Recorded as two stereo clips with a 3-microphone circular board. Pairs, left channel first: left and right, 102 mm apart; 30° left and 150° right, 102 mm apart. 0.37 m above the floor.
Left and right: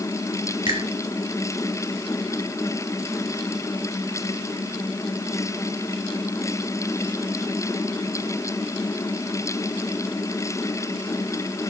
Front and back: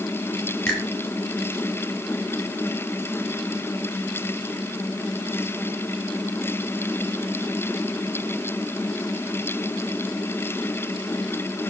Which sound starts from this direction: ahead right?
A finger snap, at 0.7 s.